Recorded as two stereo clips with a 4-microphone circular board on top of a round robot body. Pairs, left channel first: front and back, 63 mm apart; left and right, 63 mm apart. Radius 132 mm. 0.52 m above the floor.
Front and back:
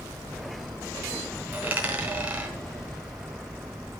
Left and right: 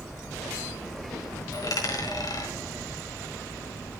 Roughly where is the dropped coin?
Behind left.